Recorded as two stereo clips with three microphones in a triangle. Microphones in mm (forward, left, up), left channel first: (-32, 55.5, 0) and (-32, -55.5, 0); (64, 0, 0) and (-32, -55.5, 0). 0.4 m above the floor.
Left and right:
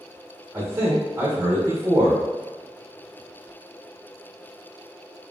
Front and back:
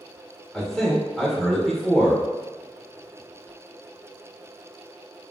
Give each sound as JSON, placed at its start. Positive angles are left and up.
{"t": 0.5, "sound": "a man speaking", "azimuth_deg": -55, "distance_m": 0.8}